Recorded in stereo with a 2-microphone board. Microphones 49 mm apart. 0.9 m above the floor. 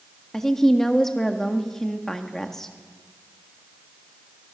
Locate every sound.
0.3 s a woman speaking: 10° left (ahead or behind), 1.5 m